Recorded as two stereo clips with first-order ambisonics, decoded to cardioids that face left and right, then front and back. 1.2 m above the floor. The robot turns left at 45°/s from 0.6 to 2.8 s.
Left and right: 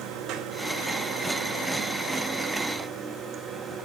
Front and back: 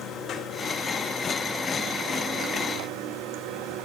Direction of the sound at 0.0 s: 55° right.